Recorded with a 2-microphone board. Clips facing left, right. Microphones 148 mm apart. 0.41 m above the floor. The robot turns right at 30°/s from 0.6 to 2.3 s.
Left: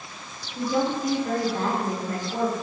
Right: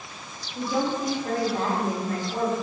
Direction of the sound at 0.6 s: 20° right (ahead or behind).